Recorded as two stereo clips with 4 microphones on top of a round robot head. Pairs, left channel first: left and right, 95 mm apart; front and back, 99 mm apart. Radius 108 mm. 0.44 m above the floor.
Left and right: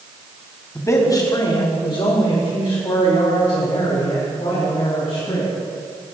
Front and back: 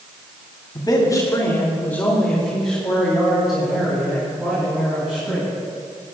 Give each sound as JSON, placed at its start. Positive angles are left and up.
{"t": 0.8, "sound": "a man speaking", "azimuth_deg": 35, "distance_m": 1.9}